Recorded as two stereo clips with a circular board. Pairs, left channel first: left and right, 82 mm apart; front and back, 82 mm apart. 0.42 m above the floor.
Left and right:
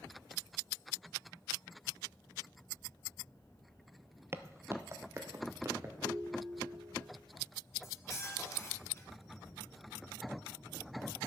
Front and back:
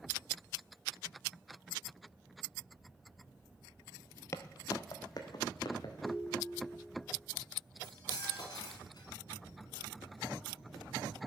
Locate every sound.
4.3 s footsteps: 40° right, 0.5 m; by 5.9 s 35° right, 2 m
6.0 s a ringtone: 110° right, 1.5 m
7.8 s cutlery clinking: 35° left, 2.5 m